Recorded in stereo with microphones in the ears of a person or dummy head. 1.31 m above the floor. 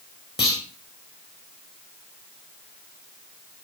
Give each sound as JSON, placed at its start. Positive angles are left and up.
{"t": 0.4, "sound": "a clunk", "side_deg": 20, "distance_m": 3.5}